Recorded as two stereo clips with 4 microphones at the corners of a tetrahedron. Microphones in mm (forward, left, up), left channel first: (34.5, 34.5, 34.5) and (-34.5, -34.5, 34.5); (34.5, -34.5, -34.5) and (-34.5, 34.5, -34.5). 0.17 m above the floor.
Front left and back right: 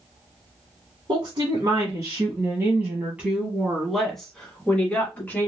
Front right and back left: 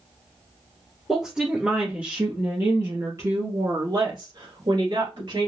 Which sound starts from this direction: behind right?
A woman speaking, at 1.1 s.